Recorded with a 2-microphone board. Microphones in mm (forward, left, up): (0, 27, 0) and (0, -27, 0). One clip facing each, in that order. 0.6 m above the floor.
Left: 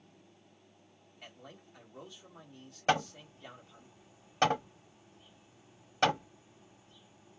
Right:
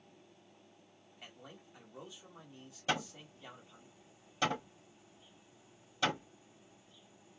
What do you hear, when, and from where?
1.2 s a man speaking: 10° right (ahead or behind), 1.6 m
2.9 s hammering: 55° left (ahead or behind), 1.2 m